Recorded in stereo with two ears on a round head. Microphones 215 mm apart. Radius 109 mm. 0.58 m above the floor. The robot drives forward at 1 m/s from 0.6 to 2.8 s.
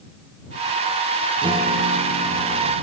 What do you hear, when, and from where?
1.4 s a guitar: 20° right (ahead or behind), 1.0 m